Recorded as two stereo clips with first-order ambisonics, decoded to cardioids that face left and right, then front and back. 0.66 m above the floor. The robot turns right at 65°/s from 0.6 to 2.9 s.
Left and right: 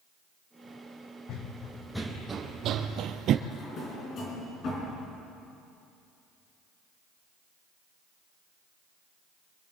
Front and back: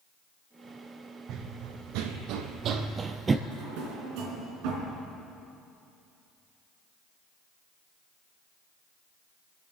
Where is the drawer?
150° left, 3.5 m.